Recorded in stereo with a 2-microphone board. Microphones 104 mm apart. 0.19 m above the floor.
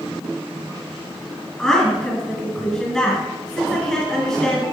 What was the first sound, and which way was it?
A woman speaking, 5° left (ahead or behind).